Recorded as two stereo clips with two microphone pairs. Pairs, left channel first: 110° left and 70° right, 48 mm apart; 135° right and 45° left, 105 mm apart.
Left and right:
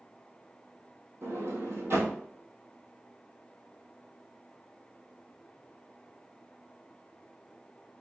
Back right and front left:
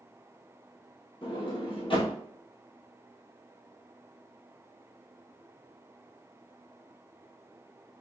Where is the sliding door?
105° right, 1.5 m.